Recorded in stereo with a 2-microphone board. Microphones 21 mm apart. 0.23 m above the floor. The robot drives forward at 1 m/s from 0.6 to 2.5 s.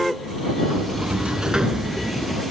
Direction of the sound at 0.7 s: 60° right (ahead or behind).